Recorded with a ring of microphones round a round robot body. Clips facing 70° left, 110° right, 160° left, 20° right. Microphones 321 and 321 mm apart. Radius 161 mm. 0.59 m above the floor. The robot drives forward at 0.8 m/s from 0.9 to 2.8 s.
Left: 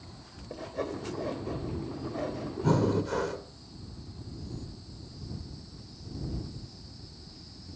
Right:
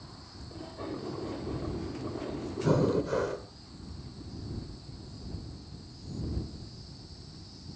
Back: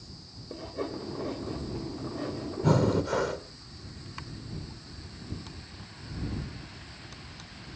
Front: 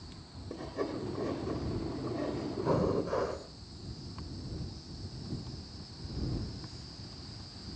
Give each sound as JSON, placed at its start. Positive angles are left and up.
{"t": 0.5, "sound": "sawing", "azimuth_deg": 60, "distance_m": 7.5}
{"t": 2.6, "sound": "breathing", "azimuth_deg": 145, "distance_m": 2.0}